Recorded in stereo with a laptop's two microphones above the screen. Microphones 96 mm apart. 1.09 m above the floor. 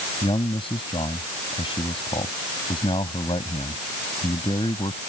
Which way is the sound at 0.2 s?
65° left (ahead or behind).